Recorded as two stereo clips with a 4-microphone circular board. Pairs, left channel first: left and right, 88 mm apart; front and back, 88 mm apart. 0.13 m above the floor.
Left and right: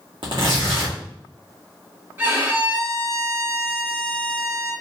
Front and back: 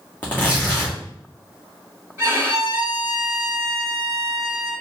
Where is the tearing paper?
75° right, 2 m.